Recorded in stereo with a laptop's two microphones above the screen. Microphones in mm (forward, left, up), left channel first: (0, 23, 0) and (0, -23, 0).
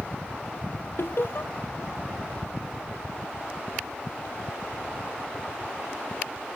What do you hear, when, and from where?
1.0 s laughter: 55° left (ahead or behind), 0.7 m